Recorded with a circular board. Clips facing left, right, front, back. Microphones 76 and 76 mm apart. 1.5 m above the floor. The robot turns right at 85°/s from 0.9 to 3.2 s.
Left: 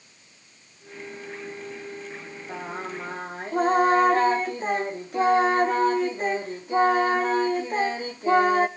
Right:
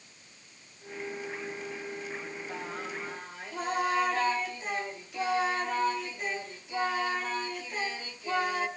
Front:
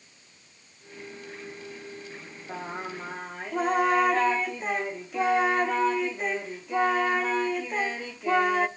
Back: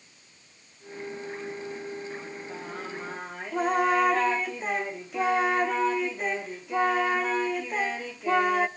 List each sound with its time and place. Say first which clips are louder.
2.5 s singing: left 7 dB, front 5 dB; 30° left, 1.2 m; by 8.7 s 90° left, 1.2 m